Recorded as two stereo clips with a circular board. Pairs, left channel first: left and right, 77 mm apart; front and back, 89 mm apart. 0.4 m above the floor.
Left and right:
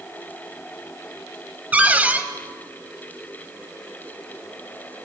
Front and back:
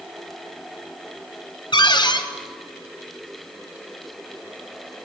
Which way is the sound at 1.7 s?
20° right.